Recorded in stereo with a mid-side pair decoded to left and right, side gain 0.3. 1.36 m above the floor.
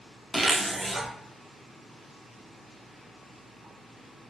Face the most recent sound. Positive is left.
turn(degrees=-35)